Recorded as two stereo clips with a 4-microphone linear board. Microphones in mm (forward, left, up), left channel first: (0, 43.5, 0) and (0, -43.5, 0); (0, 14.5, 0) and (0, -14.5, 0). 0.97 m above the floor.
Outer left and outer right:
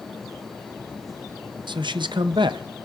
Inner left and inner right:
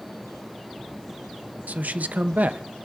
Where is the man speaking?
60° right (ahead or behind), 0.5 m.